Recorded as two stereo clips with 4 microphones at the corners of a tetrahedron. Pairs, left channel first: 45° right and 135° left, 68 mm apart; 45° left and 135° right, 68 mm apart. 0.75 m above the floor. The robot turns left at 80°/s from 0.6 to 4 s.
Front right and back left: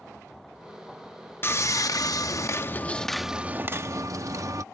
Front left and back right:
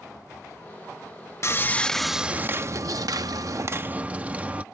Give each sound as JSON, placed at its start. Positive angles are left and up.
{"t": 1.4, "sound": "sawing", "azimuth_deg": 5}